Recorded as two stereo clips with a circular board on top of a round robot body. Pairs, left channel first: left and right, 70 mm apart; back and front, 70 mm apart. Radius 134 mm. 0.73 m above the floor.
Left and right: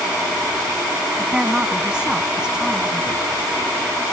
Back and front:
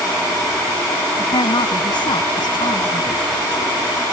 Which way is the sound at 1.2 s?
170° right.